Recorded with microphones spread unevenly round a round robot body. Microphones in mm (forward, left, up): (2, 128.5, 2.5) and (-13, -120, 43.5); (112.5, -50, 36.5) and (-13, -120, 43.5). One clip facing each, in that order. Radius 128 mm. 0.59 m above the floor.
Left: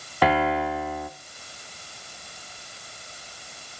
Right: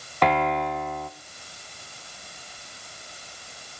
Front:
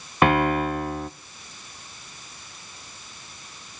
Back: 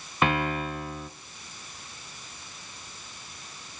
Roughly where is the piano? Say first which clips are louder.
Left 1 dB, front 7 dB; ahead.